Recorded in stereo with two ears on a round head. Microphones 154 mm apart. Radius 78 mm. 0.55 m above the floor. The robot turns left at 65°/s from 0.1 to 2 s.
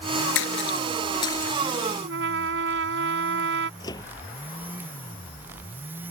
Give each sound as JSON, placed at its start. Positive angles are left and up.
{"t": 0.3, "sound": "a splash", "side_deg": 80}
{"t": 2.0, "sound": "a trumpet", "side_deg": -80}
{"t": 3.8, "sound": "a microwave", "side_deg": 20}